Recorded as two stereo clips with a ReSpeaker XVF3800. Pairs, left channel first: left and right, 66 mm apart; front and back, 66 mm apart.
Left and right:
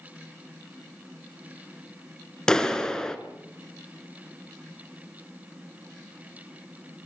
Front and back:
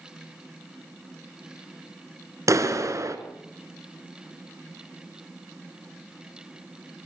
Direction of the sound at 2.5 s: 165° left.